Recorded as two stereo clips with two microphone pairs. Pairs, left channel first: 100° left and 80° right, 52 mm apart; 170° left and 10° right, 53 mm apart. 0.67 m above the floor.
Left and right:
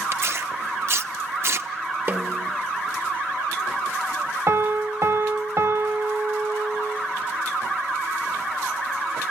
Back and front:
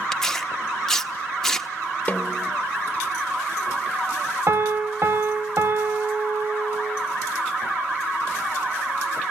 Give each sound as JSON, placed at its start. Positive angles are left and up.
{"t": 0.1, "sound": "tearing paper", "azimuth_deg": -110, "distance_m": 0.8}
{"t": 2.1, "sound": "a snare drum", "azimuth_deg": -125, "distance_m": 1.2}
{"t": 4.5, "sound": "a piano", "azimuth_deg": -45, "distance_m": 1.1}